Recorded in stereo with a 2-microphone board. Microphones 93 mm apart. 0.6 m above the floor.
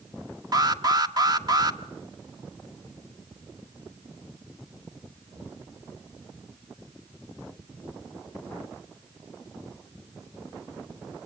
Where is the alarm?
40° right (ahead or behind), 1.3 m.